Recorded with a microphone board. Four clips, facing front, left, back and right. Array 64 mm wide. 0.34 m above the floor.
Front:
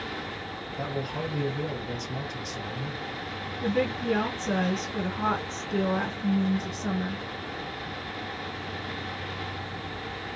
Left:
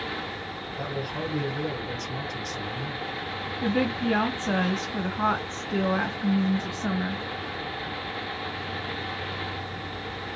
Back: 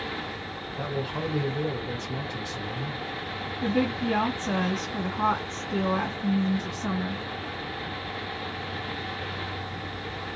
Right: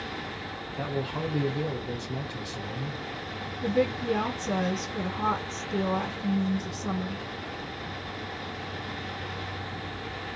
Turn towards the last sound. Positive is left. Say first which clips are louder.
# even, back 1 dB
turn(degrees=95)